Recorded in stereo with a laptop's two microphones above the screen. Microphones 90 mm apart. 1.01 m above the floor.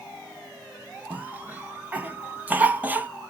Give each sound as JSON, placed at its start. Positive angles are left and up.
{"t": 1.1, "sound": "a cough", "side_deg": -20, "distance_m": 0.8}